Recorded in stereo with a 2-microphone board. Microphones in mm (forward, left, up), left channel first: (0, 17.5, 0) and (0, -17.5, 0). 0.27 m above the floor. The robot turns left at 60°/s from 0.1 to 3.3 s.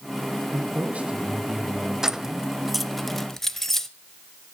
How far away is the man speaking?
About 2.5 m.